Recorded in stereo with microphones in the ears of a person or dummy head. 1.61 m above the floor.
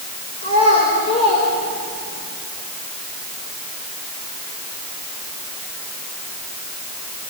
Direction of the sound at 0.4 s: 35° left (ahead or behind).